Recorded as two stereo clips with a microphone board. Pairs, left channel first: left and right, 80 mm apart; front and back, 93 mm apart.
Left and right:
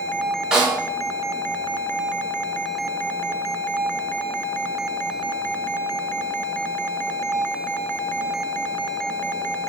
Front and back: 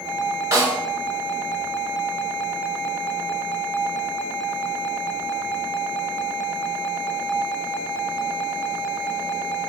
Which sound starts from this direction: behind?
A snare drum, at 0.5 s.